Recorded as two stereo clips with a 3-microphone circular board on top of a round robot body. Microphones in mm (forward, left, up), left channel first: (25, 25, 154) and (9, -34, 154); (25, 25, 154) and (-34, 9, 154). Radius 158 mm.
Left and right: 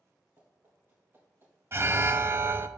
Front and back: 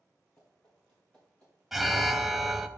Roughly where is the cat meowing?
I don't hear a cat meowing.